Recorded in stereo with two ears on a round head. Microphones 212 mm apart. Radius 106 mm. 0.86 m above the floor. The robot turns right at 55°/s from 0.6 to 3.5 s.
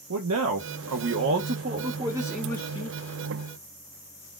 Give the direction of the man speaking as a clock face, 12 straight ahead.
3 o'clock.